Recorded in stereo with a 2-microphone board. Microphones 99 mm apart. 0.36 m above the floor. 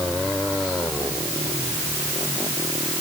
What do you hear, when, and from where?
Only background noise.